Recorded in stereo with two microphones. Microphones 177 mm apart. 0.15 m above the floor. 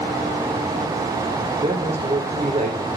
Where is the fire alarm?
I don't hear a fire alarm.